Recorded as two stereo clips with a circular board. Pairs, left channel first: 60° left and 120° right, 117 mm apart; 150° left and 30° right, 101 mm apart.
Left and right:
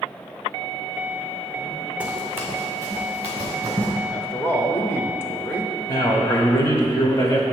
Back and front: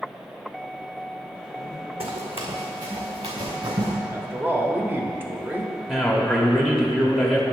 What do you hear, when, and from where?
2.0 s running footsteps: 40° right, 1.2 m; by 3.9 s 60° right, 3 m
4.1 s a man speaking: 15° left, 0.9 m
5.9 s a man speaking: 55° left, 1.2 m